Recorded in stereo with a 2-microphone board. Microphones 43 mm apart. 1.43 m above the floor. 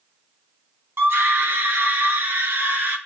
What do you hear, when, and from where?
1.0 s a scream: 85° right, 2.5 m; by 3.0 s 70° right (ahead or behind), 4 m